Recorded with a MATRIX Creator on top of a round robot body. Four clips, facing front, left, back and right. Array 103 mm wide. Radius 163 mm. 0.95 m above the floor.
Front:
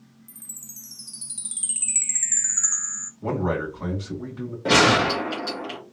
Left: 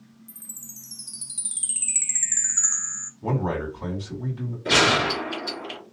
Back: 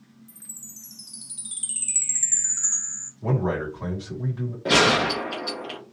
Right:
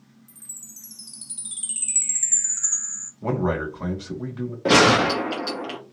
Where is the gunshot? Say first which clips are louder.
Right 5 dB, front 2 dB; 85° right, 0.6 m.